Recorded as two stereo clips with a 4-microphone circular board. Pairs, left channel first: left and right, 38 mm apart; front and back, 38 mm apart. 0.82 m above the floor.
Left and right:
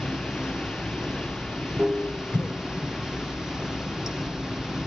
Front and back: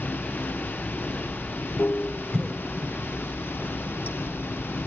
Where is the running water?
15° right, 0.8 m.